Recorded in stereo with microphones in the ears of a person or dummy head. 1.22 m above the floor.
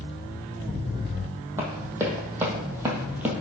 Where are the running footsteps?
15° right (ahead or behind), 1.9 m; by 3.3 s 10° right (ahead or behind), 1.3 m.